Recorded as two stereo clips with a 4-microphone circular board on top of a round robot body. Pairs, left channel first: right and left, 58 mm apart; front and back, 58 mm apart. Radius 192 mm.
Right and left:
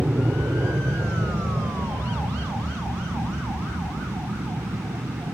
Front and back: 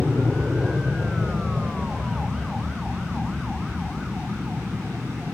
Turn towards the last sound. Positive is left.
turn(degrees=115)